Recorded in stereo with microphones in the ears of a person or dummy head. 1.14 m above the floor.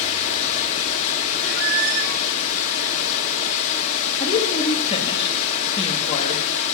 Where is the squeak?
55° right (ahead or behind), 1.0 m.